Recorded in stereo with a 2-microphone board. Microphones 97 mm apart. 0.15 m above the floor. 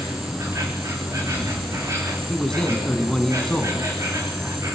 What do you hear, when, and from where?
0.0 s an insect: 30° right (ahead or behind), 4 m
2.3 s a man speaking: 5° left (ahead or behind), 1.7 m